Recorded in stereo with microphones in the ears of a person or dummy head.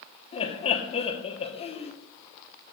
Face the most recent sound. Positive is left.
turn(degrees=30)  # may be behind; listen again after turning